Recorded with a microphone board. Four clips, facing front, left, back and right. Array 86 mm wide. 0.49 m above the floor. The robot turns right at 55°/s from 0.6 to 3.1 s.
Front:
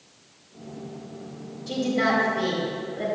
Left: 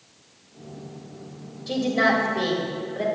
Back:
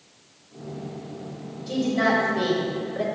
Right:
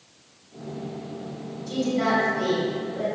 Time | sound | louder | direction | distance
1.7 | a woman speaking | left 2 dB, back 1 dB | 85° left | 2.5 m